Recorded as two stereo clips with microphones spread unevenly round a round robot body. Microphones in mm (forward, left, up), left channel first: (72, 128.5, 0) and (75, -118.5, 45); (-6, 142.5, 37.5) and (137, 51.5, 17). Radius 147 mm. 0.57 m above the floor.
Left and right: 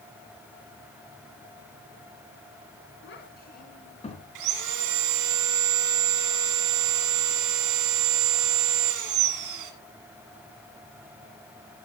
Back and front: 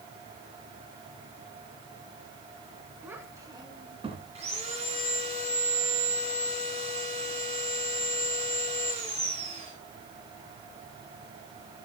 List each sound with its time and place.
3.0 s a child speaking: 50° left, 3.5 m; by 4.2 s 20° left, 3.5 m
4.3 s sawing: 105° right, 1.5 m